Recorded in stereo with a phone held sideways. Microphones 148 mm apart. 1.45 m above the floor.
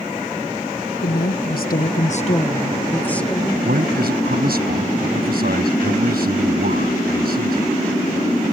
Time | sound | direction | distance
1.0 | a woman speaking | 80° left | ?
3.6 | a man speaking | 85° right | ?